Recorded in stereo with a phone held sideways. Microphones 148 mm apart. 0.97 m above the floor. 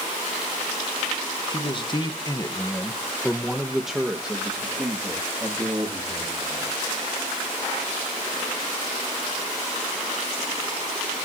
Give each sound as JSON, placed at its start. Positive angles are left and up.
{"t": 1.5, "sound": "a man speaking", "side_deg": 35, "distance_m": 1.1}